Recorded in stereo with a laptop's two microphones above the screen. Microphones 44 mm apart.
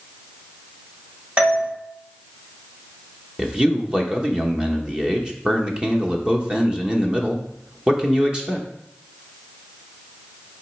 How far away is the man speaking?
About 1.0 m.